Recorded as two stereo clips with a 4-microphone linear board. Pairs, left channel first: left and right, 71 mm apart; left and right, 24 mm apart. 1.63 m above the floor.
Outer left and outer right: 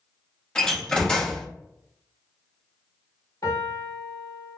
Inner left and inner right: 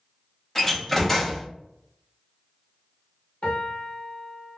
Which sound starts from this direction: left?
A piano, at 3.4 s.